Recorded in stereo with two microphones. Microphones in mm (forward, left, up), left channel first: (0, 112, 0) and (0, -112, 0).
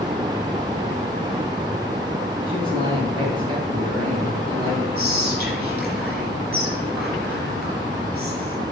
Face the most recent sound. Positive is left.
turn(degrees=-5)  # may be behind; listen again after turning